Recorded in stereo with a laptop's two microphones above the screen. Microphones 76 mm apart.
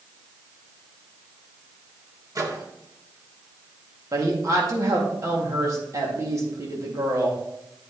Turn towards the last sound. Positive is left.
turn(degrees=-45)  # may be behind; listen again after turning